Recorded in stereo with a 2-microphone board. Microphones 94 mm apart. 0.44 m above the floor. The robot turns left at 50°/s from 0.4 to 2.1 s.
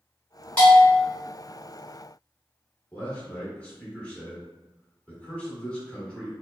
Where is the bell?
15° left (ahead or behind), 1.6 m; by 1.1 s 30° left (ahead or behind), 1.6 m.